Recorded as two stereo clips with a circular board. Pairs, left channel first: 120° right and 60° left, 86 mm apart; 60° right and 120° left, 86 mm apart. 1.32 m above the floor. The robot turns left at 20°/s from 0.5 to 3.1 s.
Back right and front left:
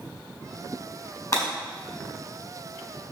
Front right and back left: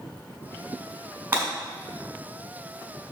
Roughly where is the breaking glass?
Behind.